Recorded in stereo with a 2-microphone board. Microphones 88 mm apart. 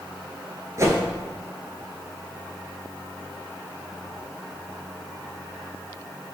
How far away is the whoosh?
About 0.7 m.